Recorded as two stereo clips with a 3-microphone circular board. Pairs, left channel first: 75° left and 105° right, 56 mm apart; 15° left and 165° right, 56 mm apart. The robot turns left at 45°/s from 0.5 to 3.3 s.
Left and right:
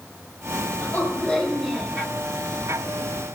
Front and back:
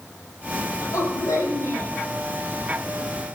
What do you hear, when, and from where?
0.8 s a woman speaking: 25° left, 7 m; by 2.0 s 30° right, 7 m